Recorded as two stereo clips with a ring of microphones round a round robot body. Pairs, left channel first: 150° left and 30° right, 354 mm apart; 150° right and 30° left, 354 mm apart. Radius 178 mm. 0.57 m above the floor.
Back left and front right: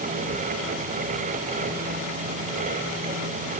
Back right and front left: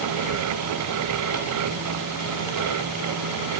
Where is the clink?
No clink in this recording.